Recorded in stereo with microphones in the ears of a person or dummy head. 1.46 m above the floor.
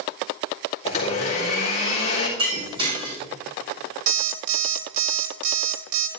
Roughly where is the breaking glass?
Right.